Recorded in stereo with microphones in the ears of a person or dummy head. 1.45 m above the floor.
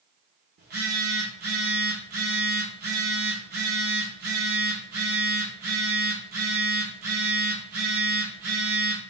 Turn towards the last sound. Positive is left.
turn(degrees=-50)  # may be behind; listen again after turning